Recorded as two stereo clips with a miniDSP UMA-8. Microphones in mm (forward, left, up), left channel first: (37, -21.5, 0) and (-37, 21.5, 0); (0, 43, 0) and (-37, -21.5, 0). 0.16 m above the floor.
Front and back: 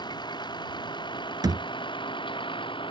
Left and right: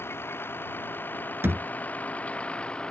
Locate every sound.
0.0 s a vehicle: straight ahead; by 2.9 s 15° right
1.4 s a thud: 175° right